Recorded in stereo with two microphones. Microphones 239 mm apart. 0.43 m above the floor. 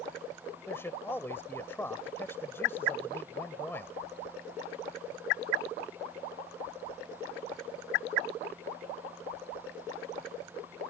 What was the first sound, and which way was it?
A man speaking, 10° left (ahead or behind).